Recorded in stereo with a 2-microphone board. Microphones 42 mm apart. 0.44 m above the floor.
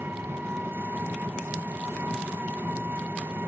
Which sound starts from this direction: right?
An engine running, at 0.0 s.